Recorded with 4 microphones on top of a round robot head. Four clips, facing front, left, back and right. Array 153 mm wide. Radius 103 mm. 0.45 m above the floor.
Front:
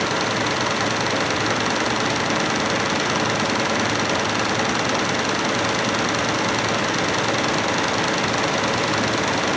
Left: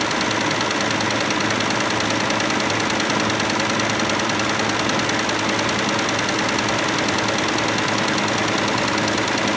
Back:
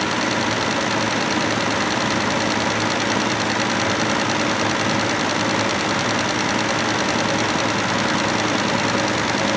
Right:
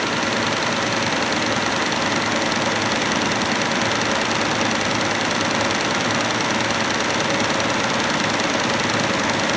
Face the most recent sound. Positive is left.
No sound to turn to.